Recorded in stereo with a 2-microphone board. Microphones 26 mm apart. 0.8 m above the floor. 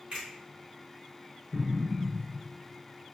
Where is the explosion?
5° left (ahead or behind), 0.8 m.